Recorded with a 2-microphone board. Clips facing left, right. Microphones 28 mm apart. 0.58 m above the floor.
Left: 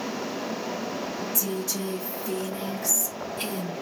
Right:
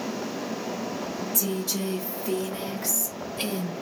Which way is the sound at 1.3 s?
65° right (ahead or behind).